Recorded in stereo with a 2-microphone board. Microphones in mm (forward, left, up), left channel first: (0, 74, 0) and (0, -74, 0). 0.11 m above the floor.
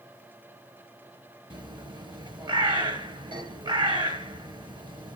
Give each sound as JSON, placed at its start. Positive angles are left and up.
{"t": 1.5, "sound": "a bird", "side_deg": -30, "distance_m": 1.0}